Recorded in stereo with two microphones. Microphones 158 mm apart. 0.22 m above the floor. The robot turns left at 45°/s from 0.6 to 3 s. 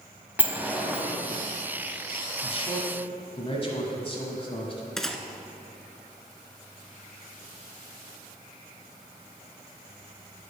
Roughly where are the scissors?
No scissors in this recording.